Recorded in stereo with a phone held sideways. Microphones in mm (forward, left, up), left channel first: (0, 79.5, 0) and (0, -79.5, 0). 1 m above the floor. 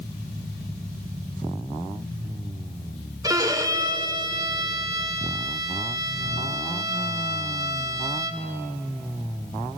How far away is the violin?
About 0.8 m.